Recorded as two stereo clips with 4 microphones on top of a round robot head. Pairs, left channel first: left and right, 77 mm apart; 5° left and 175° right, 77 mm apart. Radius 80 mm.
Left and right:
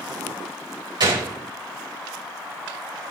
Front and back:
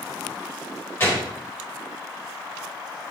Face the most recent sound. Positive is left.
turn(degrees=-60)